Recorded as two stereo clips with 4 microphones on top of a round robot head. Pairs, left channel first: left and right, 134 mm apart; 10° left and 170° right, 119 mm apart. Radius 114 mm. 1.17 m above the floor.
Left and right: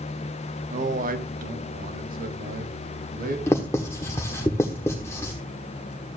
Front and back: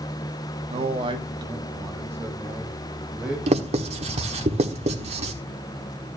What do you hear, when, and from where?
0.7 s a man speaking: 125° right, 1.0 m; by 3.4 s 85° right, 2.5 m
3.5 s writing: 165° left, 1.3 m